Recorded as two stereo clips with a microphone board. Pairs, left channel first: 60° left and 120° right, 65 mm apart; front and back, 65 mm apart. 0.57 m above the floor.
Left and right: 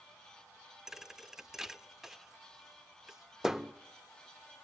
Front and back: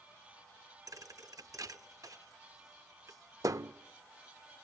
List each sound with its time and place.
0.9 s a thud: 160° left, 0.6 m